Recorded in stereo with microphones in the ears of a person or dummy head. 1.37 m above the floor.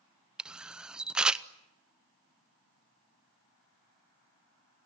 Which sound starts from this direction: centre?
A camera shutter, at 0.4 s.